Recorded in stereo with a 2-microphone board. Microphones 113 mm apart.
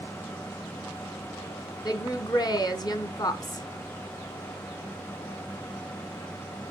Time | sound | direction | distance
1.9 | a woman speaking | 35° left (ahead or behind) | 1.4 m